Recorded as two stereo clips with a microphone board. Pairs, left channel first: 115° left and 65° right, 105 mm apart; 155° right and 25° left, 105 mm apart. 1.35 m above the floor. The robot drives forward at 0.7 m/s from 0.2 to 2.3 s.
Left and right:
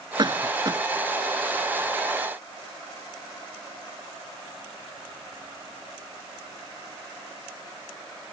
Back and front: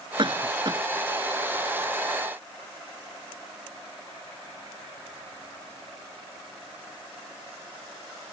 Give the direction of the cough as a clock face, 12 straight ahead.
1 o'clock.